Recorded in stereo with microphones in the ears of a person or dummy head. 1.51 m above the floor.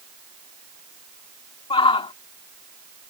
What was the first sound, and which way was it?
A shout, 30° left (ahead or behind).